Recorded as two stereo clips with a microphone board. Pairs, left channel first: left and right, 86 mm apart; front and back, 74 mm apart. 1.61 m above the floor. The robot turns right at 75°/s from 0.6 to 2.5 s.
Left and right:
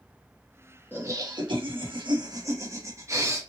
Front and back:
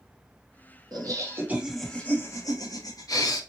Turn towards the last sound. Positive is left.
turn(degrees=-35)